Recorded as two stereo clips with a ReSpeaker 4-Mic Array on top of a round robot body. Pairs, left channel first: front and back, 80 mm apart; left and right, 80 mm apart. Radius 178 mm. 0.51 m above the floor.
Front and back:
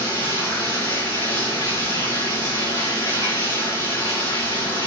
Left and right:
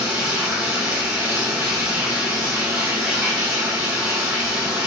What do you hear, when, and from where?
0.0 s running water: 35° right, 4.5 m